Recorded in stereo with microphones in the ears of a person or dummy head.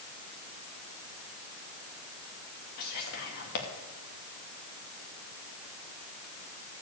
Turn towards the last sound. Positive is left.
turn(degrees=55)  # may be behind; listen again after turning